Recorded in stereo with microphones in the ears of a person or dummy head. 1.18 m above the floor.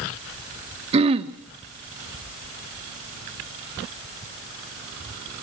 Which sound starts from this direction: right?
Throat clearing, at 0.9 s.